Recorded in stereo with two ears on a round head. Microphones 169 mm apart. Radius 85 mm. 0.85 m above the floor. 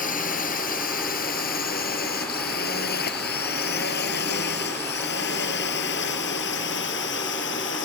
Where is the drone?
45° left (ahead or behind); by 7.9 s 70° left (ahead or behind).